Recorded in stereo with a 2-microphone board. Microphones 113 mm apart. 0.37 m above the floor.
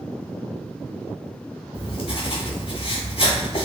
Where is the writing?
55° left (ahead or behind), 1.0 m.